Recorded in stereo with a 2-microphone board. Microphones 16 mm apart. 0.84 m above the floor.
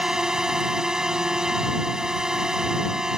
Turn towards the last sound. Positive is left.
turn(degrees=-50)  # may be behind; listen again after turning